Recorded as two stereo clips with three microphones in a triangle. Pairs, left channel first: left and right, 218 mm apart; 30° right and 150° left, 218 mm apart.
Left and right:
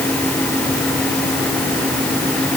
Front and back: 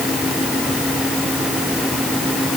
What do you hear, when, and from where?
Only background noise.